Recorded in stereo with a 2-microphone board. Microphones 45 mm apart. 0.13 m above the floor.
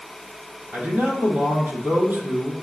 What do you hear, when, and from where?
0.7 s a man speaking: 50° right (ahead or behind), 4 m